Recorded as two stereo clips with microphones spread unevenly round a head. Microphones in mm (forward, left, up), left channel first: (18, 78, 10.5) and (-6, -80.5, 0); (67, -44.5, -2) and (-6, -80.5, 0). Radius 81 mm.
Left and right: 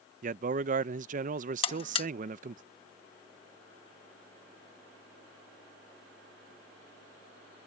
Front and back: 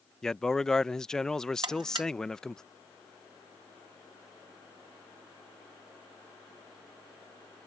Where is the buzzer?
140° left.